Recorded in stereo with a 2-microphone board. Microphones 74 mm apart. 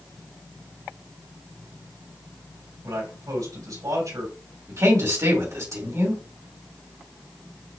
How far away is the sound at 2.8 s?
About 3 m.